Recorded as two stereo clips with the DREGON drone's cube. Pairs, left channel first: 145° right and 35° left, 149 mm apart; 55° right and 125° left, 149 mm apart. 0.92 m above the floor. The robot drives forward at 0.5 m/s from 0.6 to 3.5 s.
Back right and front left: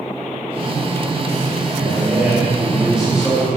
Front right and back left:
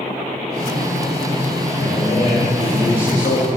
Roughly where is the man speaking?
Ahead right.